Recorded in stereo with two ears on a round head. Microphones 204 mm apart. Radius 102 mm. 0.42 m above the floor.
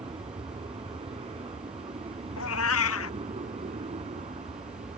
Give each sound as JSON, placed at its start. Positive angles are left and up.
{"t": 0.0, "sound": "an aircraft", "side_deg": -25}
{"t": 2.4, "sound": "a cat meowing", "side_deg": 65}